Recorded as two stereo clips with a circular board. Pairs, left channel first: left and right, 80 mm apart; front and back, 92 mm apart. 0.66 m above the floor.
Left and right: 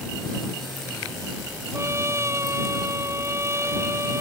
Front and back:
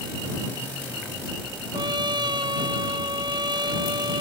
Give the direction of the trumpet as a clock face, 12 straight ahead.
5 o'clock.